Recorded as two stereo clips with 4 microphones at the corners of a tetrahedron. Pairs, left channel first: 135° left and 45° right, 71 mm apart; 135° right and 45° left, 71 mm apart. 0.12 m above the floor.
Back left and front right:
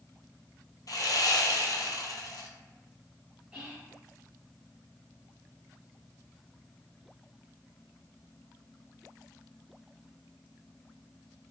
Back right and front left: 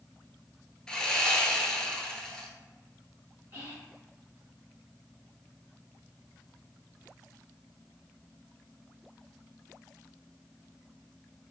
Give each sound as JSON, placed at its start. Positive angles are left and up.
{"t": 0.9, "sound": "sawing", "azimuth_deg": 150, "distance_m": 0.5}
{"t": 3.5, "sound": "whispering", "azimuth_deg": 20, "distance_m": 2.0}